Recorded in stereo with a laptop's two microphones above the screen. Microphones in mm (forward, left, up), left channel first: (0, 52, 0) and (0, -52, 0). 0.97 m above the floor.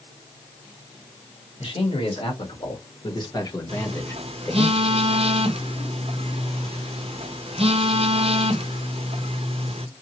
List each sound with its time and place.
1.6 s a man speaking: 65° left (ahead or behind), 2 m; by 4.7 s 15° left (ahead or behind), 1.8 m
3.7 s a phone buzzing: 75° right (ahead or behind), 0.6 m